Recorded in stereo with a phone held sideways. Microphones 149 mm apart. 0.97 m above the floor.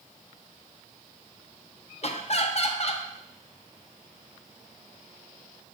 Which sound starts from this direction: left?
Laughter, at 2.0 s.